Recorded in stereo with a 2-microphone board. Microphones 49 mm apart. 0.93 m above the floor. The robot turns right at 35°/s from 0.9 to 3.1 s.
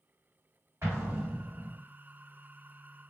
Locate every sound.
0.8 s an explosion: 115° right, 1.7 m; by 1.8 s 85° right, 1.7 m